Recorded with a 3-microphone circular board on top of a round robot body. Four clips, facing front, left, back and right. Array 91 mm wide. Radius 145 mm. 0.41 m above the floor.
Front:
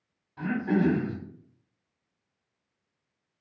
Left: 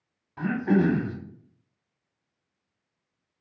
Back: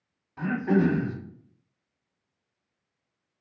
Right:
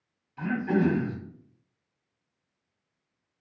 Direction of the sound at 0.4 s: 105° left.